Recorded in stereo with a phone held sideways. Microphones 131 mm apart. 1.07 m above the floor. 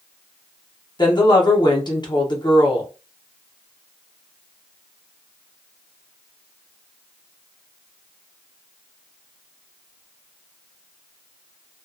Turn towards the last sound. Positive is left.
turn(degrees=35)  # may be behind; listen again after turning